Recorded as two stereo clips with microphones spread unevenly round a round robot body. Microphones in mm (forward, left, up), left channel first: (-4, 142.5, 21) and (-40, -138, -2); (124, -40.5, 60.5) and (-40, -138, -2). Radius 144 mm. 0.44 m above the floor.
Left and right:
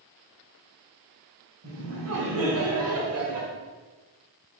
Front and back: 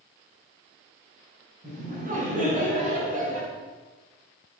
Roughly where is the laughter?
Behind right.